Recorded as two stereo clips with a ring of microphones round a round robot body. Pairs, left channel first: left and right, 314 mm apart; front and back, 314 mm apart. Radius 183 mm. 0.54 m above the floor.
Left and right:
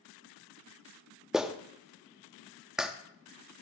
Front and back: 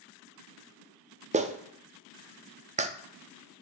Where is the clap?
175° right, 0.6 m.